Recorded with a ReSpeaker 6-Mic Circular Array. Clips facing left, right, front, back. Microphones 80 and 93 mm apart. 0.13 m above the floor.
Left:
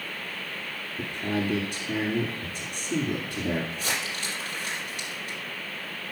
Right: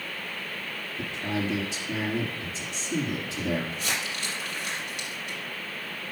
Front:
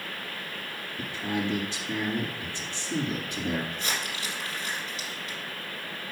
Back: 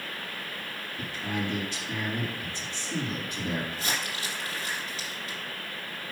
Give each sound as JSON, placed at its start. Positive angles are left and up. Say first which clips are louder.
{"t": 1.0, "sound": "a man speaking", "louder": "left 2 dB, front 2 dB", "azimuth_deg": 70, "distance_m": 2.5}
{"t": 3.7, "sound": "crumpling", "louder": "even, even", "azimuth_deg": 135, "distance_m": 4.0}